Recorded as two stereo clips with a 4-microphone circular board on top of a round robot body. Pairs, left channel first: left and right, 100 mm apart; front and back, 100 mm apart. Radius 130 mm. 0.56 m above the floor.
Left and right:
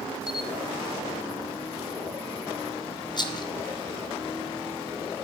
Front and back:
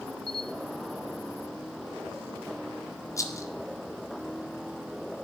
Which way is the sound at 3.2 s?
55° left.